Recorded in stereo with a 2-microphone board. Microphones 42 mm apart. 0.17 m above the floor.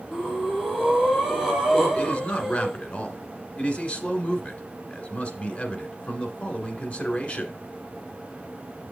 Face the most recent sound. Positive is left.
turn(degrees=35)  # may be behind; listen again after turning